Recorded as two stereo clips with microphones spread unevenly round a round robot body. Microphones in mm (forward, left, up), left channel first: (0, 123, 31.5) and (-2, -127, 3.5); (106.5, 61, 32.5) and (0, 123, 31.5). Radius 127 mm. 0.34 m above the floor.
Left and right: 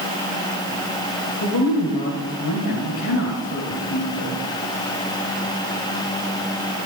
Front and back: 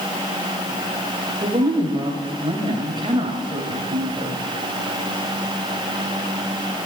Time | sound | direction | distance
1.4 | a woman speaking | 110° left | 2 m